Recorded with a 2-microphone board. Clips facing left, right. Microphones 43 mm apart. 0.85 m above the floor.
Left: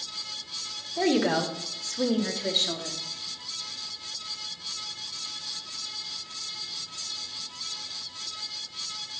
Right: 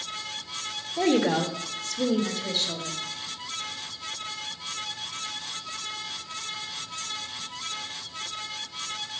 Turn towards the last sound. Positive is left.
turn(degrees=70)  # may be behind; listen again after turning